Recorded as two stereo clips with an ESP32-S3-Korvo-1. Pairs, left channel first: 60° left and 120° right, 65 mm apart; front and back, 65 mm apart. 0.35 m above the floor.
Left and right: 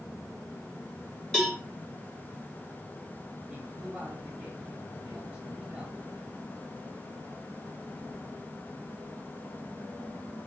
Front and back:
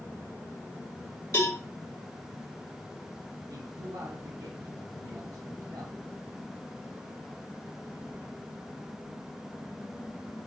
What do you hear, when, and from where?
1.3 s a cowbell: 20° right, 3 m
3.5 s a man speaking: 165° left, 6 m